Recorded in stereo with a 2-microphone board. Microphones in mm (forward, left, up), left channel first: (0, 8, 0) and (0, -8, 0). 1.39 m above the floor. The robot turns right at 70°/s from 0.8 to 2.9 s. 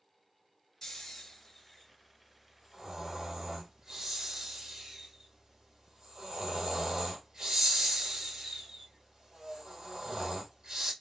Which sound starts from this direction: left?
Snoring, at 0.8 s.